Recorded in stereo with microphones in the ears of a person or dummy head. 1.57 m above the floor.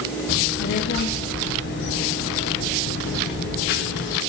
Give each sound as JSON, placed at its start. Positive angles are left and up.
{"t": 0.3, "sound": "a child speaking", "side_deg": 50, "distance_m": 0.7}